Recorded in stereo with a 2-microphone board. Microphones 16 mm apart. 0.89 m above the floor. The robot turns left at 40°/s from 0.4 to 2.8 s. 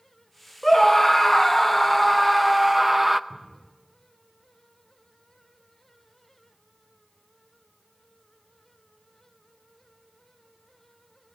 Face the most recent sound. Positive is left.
turn(degrees=30)  # may be behind; listen again after turning